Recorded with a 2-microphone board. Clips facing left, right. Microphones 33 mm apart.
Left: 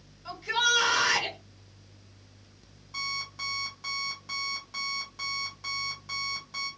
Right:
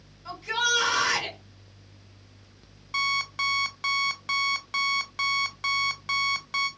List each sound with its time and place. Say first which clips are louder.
0.2 s a shout: even; 15° left (ahead or behind), 1.7 m
2.9 s an alarm clock: right 9 dB; 80° right, 0.7 m